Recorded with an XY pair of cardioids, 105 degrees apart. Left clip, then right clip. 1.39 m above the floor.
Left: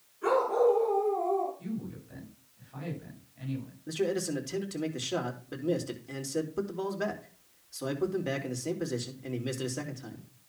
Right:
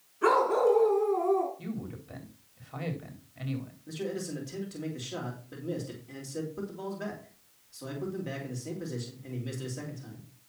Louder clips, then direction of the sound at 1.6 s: Even; 55° right.